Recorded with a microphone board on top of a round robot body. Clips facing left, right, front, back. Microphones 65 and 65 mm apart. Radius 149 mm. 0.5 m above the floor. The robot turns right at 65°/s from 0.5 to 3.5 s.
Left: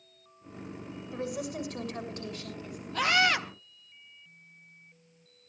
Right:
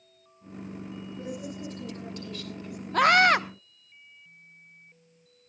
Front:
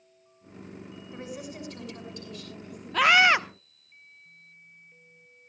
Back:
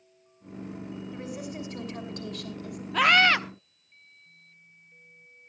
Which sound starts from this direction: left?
A woman speaking, at 1.1 s.